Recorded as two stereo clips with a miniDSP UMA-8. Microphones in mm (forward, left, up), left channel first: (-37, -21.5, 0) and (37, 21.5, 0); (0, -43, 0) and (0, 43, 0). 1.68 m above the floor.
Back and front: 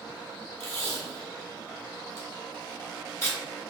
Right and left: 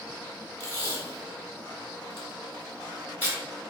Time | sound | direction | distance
0.6 | tape being pulled | 130° right | 1.6 m